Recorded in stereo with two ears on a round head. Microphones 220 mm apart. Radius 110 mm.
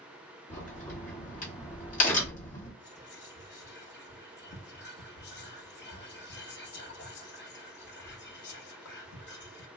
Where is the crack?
35° left (ahead or behind), 1.4 m.